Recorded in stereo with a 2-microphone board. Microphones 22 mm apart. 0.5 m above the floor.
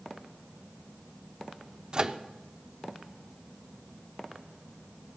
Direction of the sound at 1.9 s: 35° right (ahead or behind).